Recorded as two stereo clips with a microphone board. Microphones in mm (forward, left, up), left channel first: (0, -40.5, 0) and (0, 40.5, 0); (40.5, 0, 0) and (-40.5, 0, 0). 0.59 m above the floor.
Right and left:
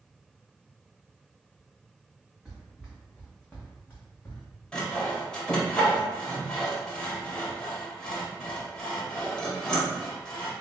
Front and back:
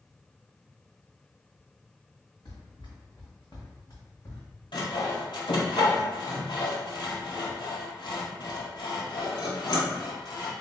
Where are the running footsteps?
5° left, 1.9 m; by 4.5 s 40° right, 1.6 m.